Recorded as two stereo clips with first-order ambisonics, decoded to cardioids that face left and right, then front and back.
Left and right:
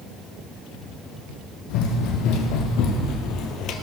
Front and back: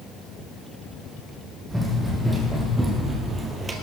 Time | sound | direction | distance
1.7 | running footsteps | 95° left | 3 m